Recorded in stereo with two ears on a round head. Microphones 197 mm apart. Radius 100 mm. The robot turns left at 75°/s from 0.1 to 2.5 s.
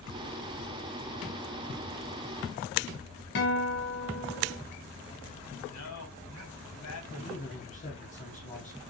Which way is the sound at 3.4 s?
55° left (ahead or behind).